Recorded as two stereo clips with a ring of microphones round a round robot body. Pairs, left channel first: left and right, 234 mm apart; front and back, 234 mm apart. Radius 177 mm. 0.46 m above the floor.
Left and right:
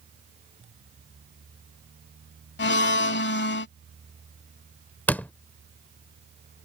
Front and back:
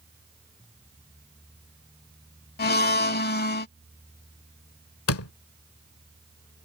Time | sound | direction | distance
2.6 | a blender | 50° left | ?
5.1 | a door slam | 5° left | ?